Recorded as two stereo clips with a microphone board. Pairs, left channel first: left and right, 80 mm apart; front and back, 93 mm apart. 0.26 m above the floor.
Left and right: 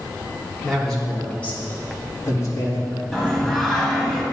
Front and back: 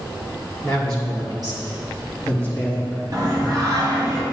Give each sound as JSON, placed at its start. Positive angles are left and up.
{"t": 0.6, "sound": "a man speaking", "azimuth_deg": 175, "distance_m": 3.0}
{"t": 3.1, "sound": "singing", "azimuth_deg": 175, "distance_m": 2.0}